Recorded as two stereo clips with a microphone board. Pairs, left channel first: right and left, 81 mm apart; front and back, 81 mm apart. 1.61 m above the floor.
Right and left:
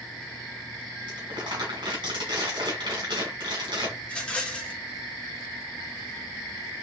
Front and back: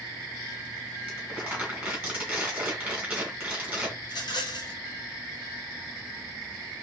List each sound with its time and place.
1.1 s crumpling: 105° left, 2.5 m
4.0 s a rattle: 15° right, 1.2 m